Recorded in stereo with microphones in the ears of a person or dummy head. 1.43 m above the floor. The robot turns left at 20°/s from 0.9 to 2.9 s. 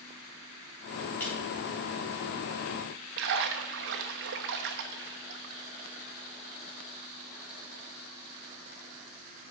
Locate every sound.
1.2 s a clap: 10° left (ahead or behind), 3.5 m
3.2 s a splash: 55° right (ahead or behind), 1.2 m